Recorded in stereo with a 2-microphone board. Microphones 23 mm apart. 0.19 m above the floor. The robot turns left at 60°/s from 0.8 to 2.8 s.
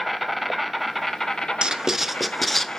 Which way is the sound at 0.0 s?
Straight behind.